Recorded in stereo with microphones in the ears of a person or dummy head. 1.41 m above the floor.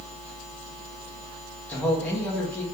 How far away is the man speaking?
About 1.4 m.